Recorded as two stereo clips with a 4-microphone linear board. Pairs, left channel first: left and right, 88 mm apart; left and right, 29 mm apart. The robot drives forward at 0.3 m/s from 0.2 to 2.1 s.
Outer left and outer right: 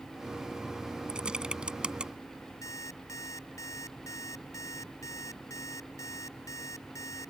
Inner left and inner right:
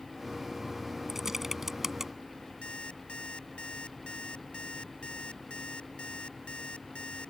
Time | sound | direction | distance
1.1 | typing on a keyboard | 10° right (ahead or behind) | ?
2.6 | an alarm clock | 35° left (ahead or behind) | ?